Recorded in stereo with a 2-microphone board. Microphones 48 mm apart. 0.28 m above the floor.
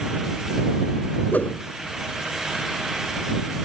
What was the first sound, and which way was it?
A whoosh, 45° left (ahead or behind).